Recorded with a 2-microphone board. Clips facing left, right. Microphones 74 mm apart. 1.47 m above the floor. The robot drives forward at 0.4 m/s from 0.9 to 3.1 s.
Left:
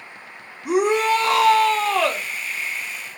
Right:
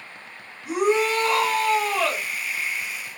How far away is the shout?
About 0.7 m.